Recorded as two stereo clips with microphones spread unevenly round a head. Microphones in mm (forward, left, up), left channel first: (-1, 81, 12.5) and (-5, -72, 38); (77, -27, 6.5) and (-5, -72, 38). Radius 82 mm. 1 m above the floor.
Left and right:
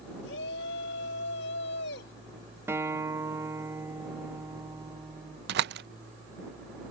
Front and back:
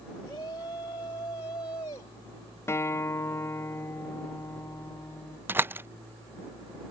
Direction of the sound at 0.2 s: 95° left.